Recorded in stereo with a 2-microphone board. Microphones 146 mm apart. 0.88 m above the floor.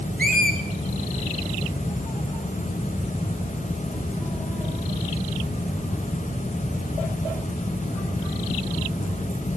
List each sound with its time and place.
0.2 s a squeak: 70° right (ahead or behind), 1.4 m